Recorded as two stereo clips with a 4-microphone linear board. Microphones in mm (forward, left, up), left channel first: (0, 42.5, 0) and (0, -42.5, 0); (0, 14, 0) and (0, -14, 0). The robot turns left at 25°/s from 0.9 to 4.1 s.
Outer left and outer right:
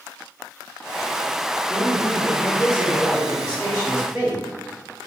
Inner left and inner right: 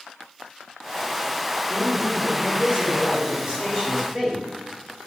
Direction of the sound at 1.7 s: 90° right.